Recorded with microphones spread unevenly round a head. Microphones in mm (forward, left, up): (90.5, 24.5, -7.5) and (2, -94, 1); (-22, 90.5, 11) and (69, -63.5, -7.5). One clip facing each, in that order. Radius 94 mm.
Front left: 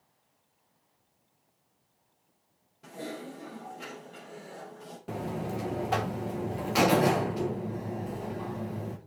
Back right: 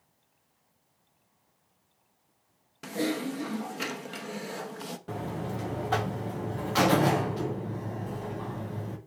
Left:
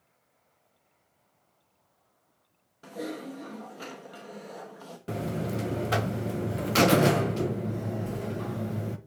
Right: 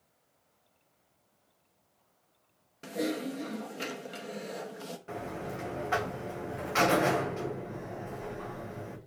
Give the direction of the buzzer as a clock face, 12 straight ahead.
8 o'clock.